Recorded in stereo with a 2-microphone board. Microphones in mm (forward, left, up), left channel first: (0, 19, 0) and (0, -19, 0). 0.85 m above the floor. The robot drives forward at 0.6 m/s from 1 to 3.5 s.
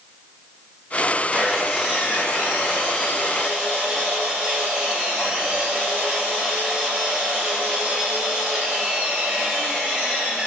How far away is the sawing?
About 0.9 m.